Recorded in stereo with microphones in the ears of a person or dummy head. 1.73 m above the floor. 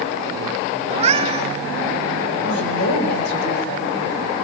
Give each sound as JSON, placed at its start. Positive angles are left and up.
{"t": 0.9, "sound": "a cat meowing", "side_deg": -30, "distance_m": 1.7}
{"t": 2.4, "sound": "a woman speaking", "side_deg": 70, "distance_m": 9.5}